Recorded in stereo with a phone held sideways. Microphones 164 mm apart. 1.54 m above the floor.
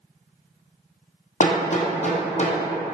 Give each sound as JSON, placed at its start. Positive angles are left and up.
{"t": 1.4, "sound": "hammering", "side_deg": 50, "distance_m": 0.6}